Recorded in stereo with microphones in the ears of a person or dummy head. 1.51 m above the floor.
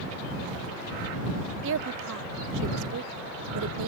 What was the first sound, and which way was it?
A woman speaking, 65° right (ahead or behind).